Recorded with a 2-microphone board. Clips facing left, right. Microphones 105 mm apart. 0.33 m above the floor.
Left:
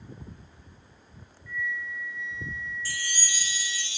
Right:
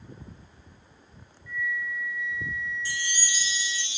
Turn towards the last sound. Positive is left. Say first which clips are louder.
# right 2 dB
turn(degrees=-20)  # may be behind; listen again after turning